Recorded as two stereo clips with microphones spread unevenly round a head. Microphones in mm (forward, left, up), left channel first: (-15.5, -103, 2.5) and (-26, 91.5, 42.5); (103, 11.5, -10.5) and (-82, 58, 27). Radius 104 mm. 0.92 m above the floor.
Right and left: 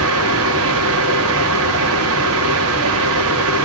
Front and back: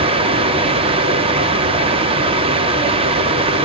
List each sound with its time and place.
0.0 s a fan: 100° left, 1.6 m